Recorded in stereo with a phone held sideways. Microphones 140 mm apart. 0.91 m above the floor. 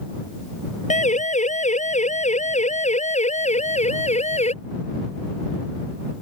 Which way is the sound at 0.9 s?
60° left (ahead or behind).